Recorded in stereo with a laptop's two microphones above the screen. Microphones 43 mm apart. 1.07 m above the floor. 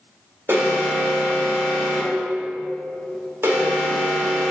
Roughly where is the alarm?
Right.